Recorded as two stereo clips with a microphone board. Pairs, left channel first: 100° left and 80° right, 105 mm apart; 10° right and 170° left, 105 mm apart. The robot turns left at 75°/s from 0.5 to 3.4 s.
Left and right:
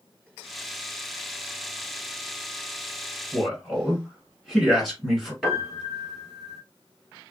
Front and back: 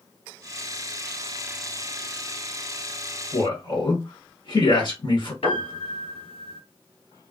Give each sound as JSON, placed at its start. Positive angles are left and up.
{"t": 3.3, "sound": "a man speaking", "azimuth_deg": 15, "distance_m": 1.8}
{"t": 5.4, "sound": "a piano", "azimuth_deg": 10, "distance_m": 1.4}